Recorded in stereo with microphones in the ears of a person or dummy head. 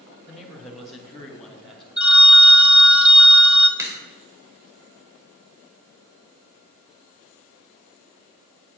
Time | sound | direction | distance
0.3 | a man speaking | centre (ahead or behind) | 2.5 m
2.0 | a phone ringing | 5° right (ahead or behind) | 1.5 m
3.8 | a crack | 10° right (ahead or behind) | 3 m